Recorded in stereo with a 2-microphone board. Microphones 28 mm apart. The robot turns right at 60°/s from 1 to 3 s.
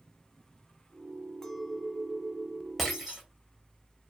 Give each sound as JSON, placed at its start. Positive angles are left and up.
{"t": 1.4, "sound": "a clink", "azimuth_deg": 150, "distance_m": 0.7}
{"t": 2.8, "sound": "breaking glass", "side_deg": 5, "distance_m": 1.0}